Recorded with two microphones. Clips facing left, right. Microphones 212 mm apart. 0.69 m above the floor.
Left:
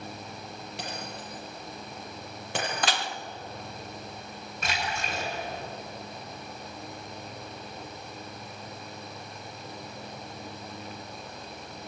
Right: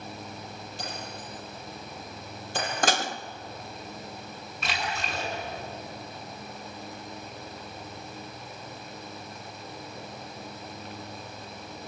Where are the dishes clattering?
45° right (ahead or behind), 0.7 m.